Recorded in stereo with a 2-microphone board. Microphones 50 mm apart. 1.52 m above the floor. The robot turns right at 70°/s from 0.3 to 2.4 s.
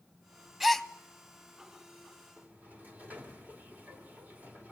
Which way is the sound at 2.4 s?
30° right (ahead or behind).